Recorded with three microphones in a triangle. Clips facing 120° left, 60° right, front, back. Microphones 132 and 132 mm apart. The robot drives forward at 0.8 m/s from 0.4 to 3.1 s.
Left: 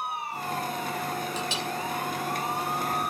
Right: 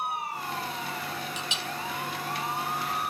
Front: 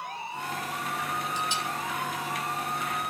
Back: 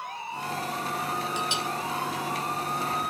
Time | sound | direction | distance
1.4 | a clink | 170° left | 2 m